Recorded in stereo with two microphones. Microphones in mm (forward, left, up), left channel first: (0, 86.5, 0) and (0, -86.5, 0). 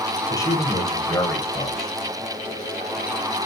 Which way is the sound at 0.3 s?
20° left (ahead or behind).